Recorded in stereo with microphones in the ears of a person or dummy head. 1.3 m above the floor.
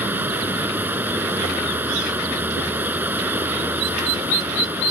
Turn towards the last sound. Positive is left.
turn(degrees=-5)  # may be behind; listen again after turning